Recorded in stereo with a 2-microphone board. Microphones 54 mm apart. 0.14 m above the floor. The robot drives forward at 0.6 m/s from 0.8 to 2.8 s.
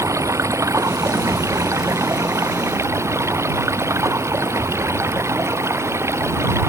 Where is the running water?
80° right; by 6.7 s 65° right (ahead or behind).